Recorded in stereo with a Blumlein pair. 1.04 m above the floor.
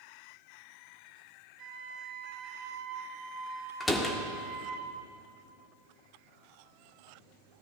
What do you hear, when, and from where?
1.6 s a flute: 30° right, 3.5 m
3.8 s a door slam: 10° left, 1.5 m